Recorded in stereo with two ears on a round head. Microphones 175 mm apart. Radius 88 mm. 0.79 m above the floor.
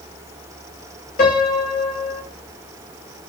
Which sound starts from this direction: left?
A piano, at 1.2 s.